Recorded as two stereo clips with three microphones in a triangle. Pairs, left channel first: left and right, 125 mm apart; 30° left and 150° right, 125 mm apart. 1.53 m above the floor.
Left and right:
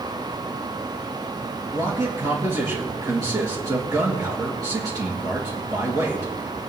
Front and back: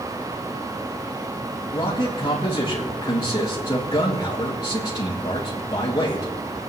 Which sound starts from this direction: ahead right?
A man speaking, at 1.7 s.